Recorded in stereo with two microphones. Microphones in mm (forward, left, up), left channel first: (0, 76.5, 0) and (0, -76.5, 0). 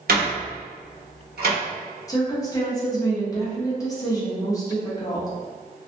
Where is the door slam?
85° right, 1.1 m.